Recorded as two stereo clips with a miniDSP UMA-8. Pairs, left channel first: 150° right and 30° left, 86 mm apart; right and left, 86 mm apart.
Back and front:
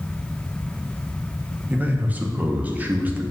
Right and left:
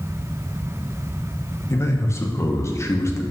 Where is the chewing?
I don't hear chewing.